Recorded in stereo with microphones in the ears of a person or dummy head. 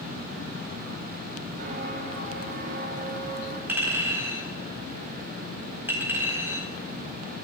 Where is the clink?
10° right (ahead or behind), 4.5 m.